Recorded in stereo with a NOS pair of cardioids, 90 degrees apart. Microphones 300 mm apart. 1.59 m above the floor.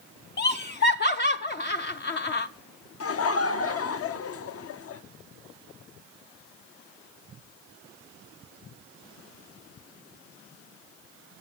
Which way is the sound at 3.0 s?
50° left.